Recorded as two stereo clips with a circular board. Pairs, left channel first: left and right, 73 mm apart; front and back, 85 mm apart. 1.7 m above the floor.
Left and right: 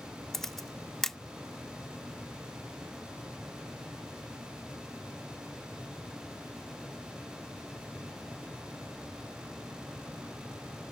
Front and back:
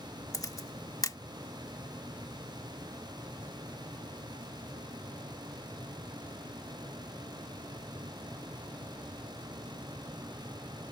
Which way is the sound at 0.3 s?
5° left.